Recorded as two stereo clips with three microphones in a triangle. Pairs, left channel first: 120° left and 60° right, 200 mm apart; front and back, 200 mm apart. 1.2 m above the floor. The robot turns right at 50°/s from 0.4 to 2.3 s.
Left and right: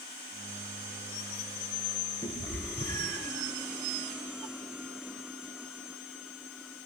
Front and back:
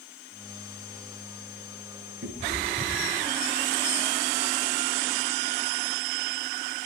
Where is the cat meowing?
170° right, 8.5 m; by 3.3 s 165° right, 8.5 m.